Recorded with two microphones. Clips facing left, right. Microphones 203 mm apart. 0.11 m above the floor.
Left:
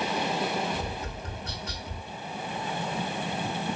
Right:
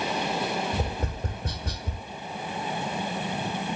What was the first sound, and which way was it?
Tapping, 55° right (ahead or behind).